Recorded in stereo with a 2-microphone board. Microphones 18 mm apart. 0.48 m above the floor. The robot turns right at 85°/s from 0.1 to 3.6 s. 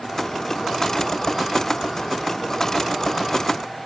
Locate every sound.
Only background noise.